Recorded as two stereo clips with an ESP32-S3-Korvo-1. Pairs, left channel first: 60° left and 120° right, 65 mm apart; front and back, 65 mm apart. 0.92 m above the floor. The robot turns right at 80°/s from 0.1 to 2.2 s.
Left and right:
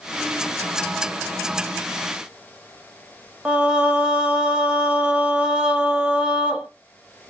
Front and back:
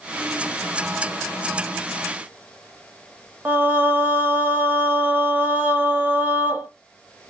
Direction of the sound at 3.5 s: Straight behind.